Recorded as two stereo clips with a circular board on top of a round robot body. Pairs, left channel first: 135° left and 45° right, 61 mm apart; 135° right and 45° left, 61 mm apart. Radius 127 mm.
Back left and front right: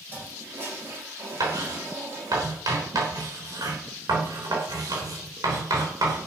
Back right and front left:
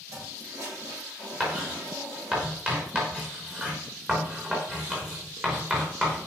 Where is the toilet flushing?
5° left, 8 m.